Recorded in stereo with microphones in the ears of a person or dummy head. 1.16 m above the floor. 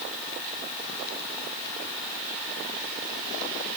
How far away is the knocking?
I don't hear knocking.